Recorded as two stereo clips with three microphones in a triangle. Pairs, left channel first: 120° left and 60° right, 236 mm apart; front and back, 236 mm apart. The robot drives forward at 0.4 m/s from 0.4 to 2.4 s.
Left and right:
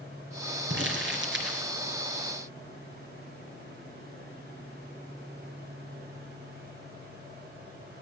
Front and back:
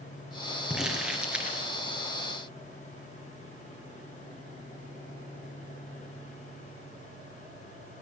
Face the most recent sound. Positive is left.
turn(degrees=-100)